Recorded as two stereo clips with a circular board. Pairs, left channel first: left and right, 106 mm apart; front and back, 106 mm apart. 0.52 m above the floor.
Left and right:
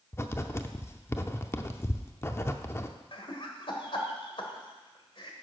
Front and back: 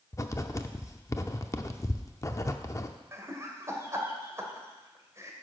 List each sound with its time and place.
0.1 s writing: 40° left, 0.6 m
3.1 s laughter: 120° left, 1.7 m